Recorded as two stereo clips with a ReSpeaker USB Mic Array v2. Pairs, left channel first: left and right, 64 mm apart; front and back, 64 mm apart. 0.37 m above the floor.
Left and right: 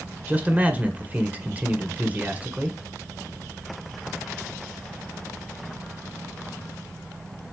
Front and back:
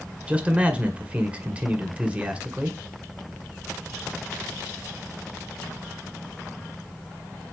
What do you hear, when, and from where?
0.3 s a man speaking: 130° right, 1.6 m